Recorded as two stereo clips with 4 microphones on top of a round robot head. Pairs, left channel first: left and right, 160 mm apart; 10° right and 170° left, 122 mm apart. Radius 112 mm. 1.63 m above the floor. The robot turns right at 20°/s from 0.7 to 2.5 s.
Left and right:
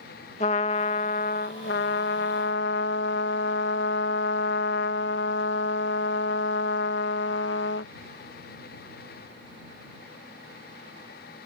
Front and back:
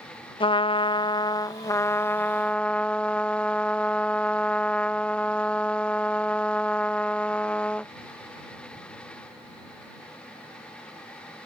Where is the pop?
I don't hear a pop.